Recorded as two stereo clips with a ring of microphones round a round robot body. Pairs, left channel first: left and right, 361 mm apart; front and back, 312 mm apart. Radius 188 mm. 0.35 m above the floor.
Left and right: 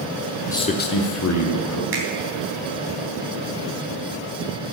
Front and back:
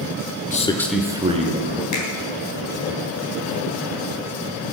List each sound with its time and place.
0.5 s a man speaking: 20° left, 0.9 m; by 1.8 s 120° left, 1.6 m
1.9 s a finger snap: 35° right, 3.5 m